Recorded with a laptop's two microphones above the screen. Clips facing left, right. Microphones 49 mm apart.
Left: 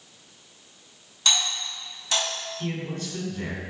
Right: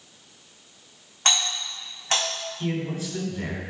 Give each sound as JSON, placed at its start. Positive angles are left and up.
{"t": 1.2, "sound": "a doorbell", "side_deg": -50, "distance_m": 3.5}
{"t": 2.6, "sound": "a man speaking", "side_deg": -10, "distance_m": 3.0}